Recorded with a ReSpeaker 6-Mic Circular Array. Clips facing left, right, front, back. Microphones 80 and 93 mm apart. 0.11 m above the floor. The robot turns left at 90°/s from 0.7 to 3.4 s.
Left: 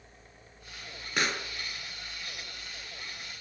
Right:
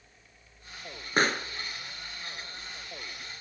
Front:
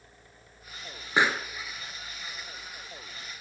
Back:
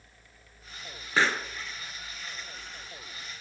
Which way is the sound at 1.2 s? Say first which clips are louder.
Right 5 dB, front 1 dB; 65° right.